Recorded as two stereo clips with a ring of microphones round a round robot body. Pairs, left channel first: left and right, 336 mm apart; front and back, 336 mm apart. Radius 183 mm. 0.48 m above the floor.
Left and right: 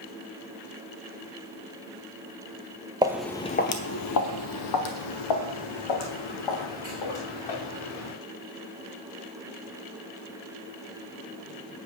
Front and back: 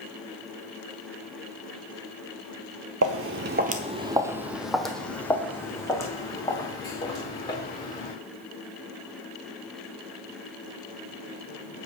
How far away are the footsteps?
About 0.5 m.